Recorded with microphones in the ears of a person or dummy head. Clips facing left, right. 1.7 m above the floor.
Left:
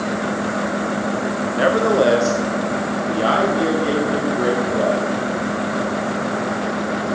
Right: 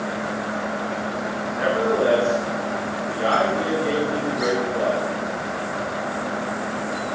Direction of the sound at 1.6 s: 75° left (ahead or behind).